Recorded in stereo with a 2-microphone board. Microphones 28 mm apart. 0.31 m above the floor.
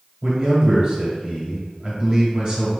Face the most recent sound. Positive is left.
turn(degrees=-35)  # may be behind; listen again after turning